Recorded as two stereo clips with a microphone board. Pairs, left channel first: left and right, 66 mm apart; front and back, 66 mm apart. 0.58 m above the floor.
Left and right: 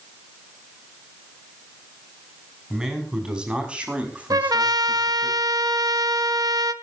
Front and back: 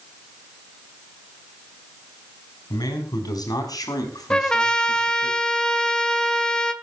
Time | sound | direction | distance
2.7 | a man speaking | 10° right | 5 m
4.3 | a trumpet | 80° right | 1.0 m